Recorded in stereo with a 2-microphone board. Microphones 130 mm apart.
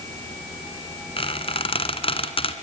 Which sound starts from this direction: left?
A squeak, at 1.2 s.